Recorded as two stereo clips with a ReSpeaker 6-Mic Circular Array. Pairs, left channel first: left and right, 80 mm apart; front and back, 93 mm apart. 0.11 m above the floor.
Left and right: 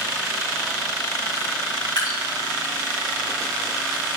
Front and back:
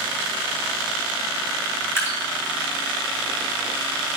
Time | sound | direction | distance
2.0 | dripping | 60° left | 2.5 m